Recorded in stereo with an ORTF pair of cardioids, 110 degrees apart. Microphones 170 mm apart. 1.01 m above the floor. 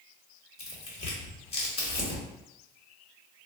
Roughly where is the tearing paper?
Ahead left.